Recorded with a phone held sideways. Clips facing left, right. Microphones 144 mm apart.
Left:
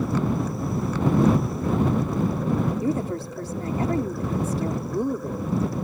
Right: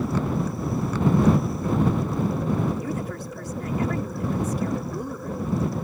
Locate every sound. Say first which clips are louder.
2.8 s a woman speaking: left 5 dB; 35° left (ahead or behind)